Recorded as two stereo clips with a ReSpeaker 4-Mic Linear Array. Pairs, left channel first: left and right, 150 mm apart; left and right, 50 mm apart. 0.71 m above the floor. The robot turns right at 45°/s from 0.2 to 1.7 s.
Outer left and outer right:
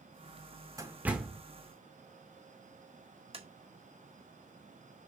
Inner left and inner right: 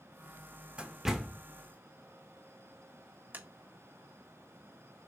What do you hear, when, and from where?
0.8 s a door slam: 20° right (ahead or behind), 1.7 m; by 1.4 s 5° left (ahead or behind), 1.7 m
3.3 s tapping: 40° right (ahead or behind), 1.7 m